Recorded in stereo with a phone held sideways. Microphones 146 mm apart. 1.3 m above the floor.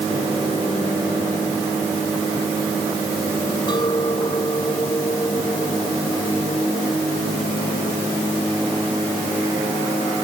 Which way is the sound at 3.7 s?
30° left (ahead or behind).